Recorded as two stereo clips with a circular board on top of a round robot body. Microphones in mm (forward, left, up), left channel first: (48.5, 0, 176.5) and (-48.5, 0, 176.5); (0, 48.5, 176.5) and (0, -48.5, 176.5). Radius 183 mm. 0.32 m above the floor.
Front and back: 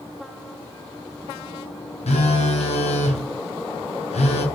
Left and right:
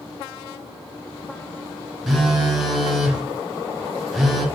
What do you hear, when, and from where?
2.1 s a phone buzzing: straight ahead, 0.7 m